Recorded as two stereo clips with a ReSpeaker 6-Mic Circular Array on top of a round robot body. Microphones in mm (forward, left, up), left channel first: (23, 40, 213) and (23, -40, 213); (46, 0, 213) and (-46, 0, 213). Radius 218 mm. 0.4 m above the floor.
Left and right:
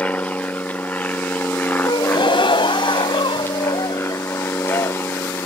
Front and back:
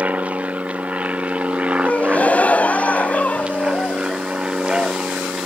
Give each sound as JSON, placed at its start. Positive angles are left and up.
{"t": 0.0, "sound": "an aircraft", "azimuth_deg": 130}
{"t": 1.9, "sound": "a gasp", "azimuth_deg": 75}